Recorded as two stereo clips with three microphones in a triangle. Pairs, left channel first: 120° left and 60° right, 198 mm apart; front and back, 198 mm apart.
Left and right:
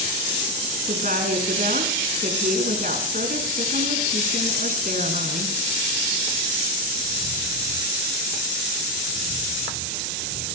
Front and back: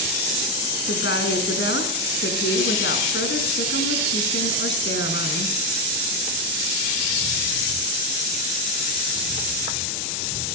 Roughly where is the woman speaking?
Ahead.